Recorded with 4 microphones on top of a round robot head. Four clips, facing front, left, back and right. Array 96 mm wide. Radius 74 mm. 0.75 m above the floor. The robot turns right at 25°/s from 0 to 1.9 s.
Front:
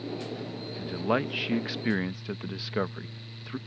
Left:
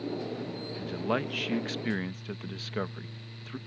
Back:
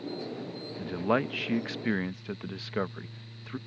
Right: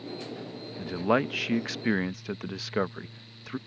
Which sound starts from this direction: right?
A man speaking, at 0.8 s.